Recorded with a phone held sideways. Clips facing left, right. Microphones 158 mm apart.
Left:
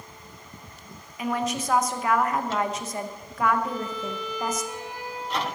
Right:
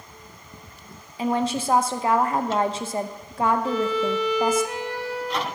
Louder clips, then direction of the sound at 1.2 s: Right 4 dB; 30° right (ahead or behind).